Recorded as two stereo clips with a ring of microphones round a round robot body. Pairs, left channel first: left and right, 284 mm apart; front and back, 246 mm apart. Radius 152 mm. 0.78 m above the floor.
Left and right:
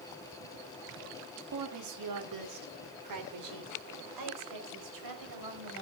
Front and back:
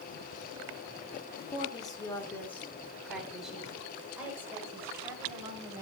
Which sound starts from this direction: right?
A woman speaking, at 1.5 s.